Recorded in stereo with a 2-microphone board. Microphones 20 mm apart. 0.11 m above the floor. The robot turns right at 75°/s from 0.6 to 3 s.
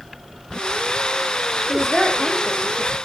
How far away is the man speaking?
About 4.5 m.